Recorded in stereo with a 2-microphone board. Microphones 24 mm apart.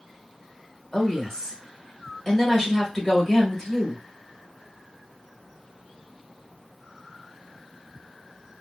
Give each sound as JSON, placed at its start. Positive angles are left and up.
{"t": 0.9, "sound": "a woman speaking", "side_deg": 20, "distance_m": 1.6}